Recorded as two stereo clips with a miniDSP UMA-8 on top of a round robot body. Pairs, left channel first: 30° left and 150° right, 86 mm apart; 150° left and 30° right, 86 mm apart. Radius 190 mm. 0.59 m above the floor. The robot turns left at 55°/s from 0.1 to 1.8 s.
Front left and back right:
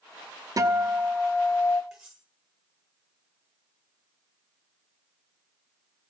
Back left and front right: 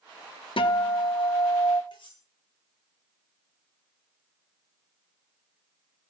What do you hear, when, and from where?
0.6 s a guitar: 160° left, 1.4 m; by 1.8 s 90° left, 1.4 m
1.9 s cutlery clinking: 125° left, 8 m